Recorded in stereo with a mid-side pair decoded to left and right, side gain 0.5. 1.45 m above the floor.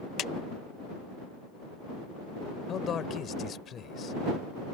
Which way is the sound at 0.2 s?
60° left.